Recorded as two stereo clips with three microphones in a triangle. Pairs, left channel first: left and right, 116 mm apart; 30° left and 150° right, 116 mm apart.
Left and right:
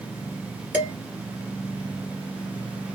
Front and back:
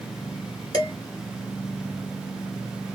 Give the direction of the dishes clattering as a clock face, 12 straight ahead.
1 o'clock.